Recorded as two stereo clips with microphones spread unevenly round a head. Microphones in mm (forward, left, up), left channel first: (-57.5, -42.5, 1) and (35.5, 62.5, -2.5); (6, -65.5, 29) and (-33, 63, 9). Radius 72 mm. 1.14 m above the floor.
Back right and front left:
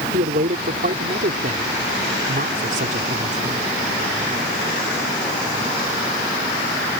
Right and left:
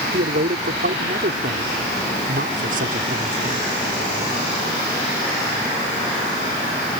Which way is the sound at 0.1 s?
80° left.